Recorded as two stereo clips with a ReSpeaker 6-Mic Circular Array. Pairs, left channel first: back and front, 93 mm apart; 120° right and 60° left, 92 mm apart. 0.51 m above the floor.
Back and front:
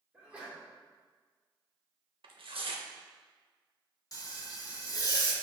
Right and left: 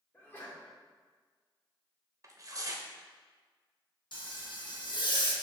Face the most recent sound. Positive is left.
turn(degrees=-135)